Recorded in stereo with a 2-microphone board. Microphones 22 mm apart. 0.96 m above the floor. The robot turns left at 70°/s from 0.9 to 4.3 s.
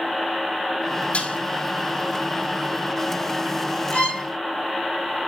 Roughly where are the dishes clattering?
Left.